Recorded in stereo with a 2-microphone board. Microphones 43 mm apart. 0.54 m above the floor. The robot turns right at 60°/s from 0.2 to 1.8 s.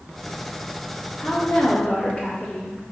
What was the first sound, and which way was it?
A woman speaking, 85° left.